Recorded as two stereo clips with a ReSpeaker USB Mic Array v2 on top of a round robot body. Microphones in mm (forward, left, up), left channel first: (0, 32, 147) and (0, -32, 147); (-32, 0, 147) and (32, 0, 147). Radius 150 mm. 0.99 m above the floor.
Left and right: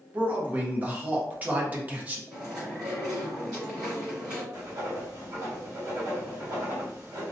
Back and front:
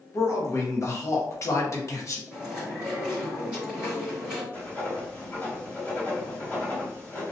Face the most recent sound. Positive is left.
turn(degrees=-120)